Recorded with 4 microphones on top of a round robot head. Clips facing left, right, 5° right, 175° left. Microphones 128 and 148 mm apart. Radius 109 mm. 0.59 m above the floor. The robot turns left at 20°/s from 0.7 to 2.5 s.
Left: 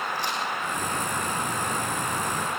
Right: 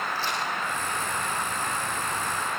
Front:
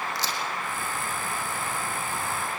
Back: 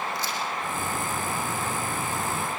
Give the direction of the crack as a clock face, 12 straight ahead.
12 o'clock.